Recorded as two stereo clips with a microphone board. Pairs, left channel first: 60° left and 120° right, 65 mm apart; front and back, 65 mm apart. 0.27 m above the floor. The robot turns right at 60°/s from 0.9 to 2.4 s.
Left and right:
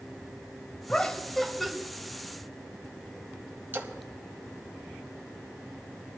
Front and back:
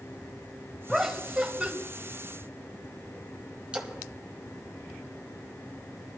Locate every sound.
0.9 s laughter: 105° left, 1.0 m; by 1.7 s 155° left, 1.0 m
3.7 s a splash: 125° right, 1.5 m